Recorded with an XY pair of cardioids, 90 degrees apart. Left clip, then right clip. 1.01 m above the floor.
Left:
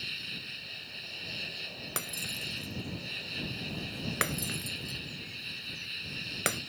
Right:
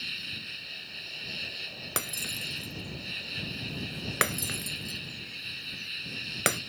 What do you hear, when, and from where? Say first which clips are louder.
0.0 s an insect: right 2 dB; 20° right
2.0 s breaking glass: right 3 dB; 35° right